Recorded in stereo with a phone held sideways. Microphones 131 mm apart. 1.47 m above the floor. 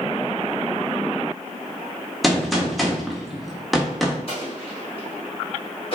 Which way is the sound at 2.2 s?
Centre (ahead or behind).